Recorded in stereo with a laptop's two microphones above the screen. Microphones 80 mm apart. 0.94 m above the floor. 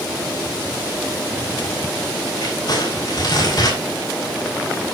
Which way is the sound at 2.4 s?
60° left (ahead or behind).